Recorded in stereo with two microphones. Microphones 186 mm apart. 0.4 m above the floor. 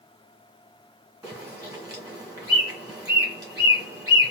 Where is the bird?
20° right (ahead or behind), 1.6 m.